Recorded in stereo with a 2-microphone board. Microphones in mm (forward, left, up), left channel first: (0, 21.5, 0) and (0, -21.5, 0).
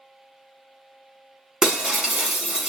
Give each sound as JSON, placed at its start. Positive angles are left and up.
{"t": 1.6, "sound": "breaking glass", "side_deg": -15, "distance_m": 0.9}